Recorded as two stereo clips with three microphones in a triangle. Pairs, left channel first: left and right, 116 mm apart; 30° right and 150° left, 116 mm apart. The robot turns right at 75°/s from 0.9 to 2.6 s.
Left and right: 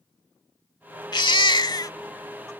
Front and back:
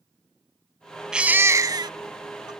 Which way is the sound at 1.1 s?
70° left.